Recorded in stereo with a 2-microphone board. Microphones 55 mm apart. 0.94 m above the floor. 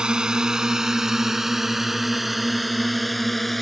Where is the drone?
15° right (ahead or behind); by 3.6 s centre (ahead or behind).